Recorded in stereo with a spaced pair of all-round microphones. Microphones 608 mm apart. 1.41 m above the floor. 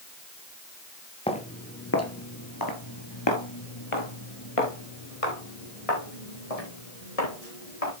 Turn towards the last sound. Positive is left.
turn(degrees=75)  # may be behind; listen again after turning